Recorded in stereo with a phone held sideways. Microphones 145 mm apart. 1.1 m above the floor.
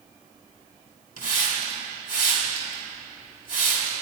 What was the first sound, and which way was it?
A hiss, 75° left (ahead or behind).